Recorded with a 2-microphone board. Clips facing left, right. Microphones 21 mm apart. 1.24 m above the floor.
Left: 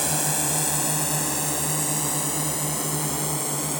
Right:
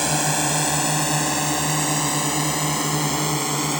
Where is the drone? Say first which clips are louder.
Right 5 dB; 15° right (ahead or behind); by 3.8 s 30° right (ahead or behind).